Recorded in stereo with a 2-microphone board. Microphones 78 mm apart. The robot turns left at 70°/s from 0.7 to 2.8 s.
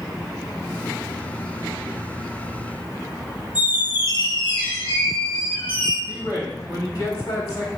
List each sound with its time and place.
3.5 s a squeak: 80° left, 1.3 m
6.1 s a man speaking: 50° left (ahead or behind), 1.5 m